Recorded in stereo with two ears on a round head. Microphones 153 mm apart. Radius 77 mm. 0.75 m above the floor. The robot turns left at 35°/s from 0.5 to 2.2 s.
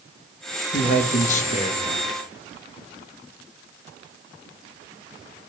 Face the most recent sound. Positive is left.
turn(degrees=40)